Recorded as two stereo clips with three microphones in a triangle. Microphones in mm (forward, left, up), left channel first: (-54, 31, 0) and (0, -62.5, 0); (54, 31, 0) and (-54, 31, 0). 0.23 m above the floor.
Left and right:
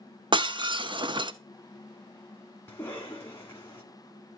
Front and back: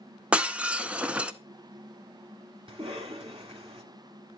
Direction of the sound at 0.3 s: 100° right.